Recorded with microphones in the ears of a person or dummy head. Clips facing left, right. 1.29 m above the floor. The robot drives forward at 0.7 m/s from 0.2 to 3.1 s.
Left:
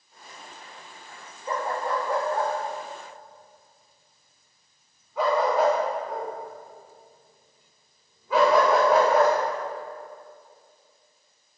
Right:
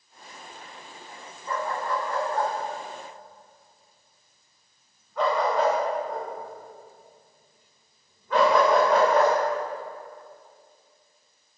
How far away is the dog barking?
About 0.7 m.